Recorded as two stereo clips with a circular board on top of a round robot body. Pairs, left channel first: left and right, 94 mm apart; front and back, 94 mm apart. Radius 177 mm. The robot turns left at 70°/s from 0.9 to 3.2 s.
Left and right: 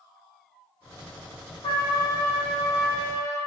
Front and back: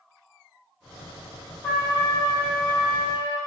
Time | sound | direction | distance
1.6 | a trumpet | 65° left | 4 m